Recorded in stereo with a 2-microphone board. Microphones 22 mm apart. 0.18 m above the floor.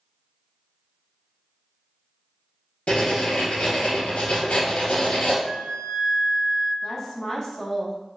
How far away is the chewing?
No chewing in this recording.